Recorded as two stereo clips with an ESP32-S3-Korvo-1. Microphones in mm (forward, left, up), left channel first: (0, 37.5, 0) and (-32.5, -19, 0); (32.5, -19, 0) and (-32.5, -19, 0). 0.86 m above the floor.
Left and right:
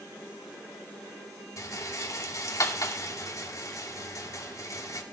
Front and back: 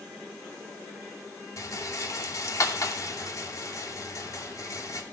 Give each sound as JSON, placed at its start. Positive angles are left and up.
{"t": 1.6, "sound": "a rattle", "azimuth_deg": 30, "distance_m": 2.5}